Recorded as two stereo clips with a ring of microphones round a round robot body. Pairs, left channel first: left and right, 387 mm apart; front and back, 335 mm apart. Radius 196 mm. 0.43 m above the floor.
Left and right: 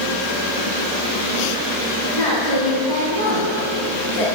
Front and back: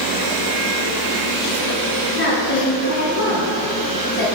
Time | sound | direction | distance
2.1 | a woman speaking | 55° left | 3.5 m